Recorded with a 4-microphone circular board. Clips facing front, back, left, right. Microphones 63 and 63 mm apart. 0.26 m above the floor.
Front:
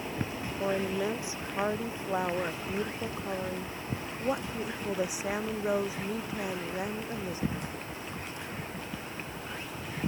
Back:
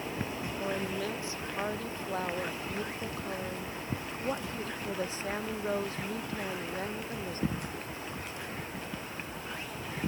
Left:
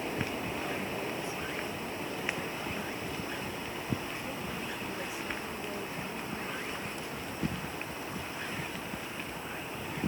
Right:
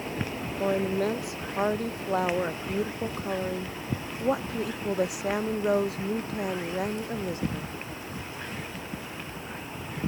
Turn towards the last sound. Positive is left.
turn(degrees=-80)